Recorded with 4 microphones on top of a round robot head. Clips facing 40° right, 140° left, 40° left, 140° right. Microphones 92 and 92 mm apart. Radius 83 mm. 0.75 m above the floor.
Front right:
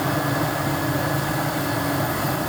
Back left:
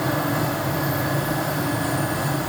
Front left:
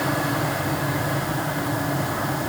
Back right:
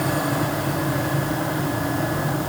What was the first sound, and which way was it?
Only background noise.